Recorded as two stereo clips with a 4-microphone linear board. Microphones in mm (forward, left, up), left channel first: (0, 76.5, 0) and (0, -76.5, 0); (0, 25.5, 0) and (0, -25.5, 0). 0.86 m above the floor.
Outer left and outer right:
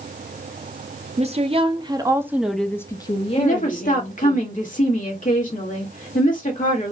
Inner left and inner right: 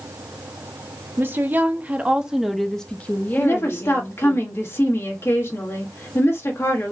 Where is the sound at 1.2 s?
45° right (ahead or behind), 1.0 m; by 4.4 s 65° left (ahead or behind), 1.1 m.